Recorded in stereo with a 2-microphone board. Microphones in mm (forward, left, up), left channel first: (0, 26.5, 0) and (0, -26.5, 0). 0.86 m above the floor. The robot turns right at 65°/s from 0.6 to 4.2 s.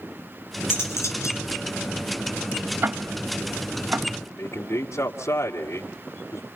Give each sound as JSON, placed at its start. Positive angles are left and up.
{"t": 0.7, "sound": "cutlery clinking", "azimuth_deg": 45, "distance_m": 6.0}
{"t": 2.8, "sound": "ticking", "side_deg": -45, "distance_m": 0.7}
{"t": 4.4, "sound": "a man speaking", "side_deg": 70, "distance_m": 2.5}